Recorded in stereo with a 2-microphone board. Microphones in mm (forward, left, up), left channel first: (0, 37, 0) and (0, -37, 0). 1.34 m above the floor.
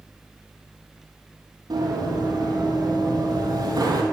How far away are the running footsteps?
About 2.5 m.